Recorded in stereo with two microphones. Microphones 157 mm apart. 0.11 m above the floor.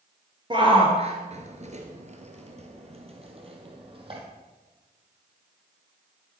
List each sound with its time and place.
0.5 s a shout: 30° right (ahead or behind), 1.7 m; by 4.2 s 35° right (ahead or behind), 3.5 m